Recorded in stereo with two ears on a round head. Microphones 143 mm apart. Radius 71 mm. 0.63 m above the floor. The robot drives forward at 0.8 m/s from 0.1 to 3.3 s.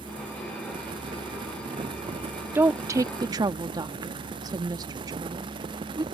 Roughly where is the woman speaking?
Centre.